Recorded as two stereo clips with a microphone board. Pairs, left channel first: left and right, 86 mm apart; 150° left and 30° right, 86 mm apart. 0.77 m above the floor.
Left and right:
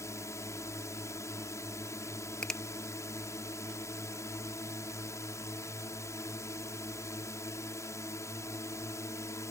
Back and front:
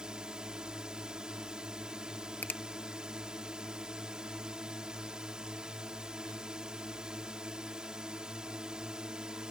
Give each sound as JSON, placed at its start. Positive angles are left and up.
{"t": 0.0, "sound": "a drone", "azimuth_deg": 50}
{"t": 2.4, "sound": "a finger snap", "azimuth_deg": 155}